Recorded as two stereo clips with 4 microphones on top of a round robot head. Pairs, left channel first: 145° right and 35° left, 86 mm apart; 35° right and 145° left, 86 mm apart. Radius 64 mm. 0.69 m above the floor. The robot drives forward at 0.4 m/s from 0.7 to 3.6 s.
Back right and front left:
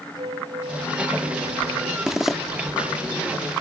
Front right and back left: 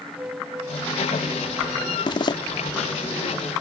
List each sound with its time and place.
0.2 s a flute: 75° left
2.1 s a zipper: 50° right; by 2.4 s 55° right